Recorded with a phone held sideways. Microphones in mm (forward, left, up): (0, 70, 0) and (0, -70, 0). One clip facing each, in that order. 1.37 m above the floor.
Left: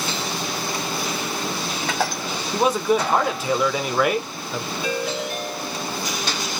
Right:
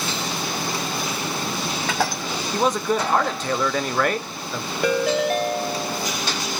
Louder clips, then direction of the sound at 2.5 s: Left 2 dB; 10° left (ahead or behind).